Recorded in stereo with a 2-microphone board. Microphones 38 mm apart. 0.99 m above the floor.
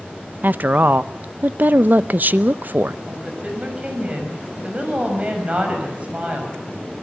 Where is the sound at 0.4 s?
50° right (ahead or behind), 0.6 m.